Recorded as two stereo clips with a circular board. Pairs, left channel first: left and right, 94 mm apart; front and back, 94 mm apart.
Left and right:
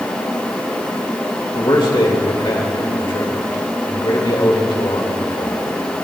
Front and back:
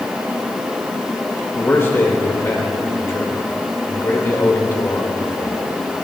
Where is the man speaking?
60° left, 2.5 m.